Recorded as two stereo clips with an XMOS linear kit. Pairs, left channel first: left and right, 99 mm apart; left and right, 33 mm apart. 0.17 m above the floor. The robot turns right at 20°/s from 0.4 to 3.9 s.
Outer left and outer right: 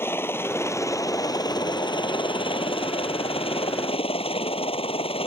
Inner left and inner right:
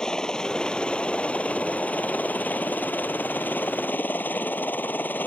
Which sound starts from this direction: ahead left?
A helicopter, at 0.0 s.